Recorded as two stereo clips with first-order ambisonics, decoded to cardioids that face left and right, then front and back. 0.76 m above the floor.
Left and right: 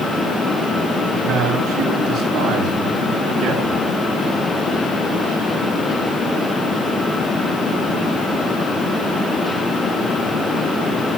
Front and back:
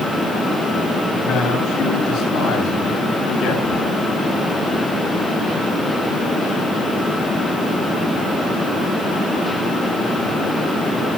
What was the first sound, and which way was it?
A man speaking, 40° right.